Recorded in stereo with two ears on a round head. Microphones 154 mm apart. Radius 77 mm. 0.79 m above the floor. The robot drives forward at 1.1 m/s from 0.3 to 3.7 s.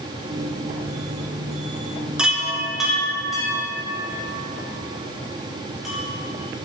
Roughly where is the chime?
Centre.